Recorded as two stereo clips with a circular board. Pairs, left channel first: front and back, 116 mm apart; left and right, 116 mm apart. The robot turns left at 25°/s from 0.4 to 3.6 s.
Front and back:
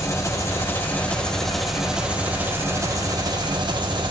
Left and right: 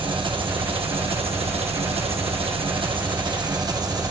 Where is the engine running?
60° right, 1.1 m; by 4.1 s 140° right, 1.1 m.